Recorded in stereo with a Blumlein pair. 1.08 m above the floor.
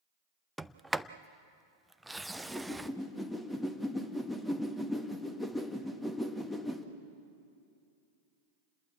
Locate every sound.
0.6 s a sliding door: 5° right, 0.6 m
2.3 s a whoosh: 5° left, 1.6 m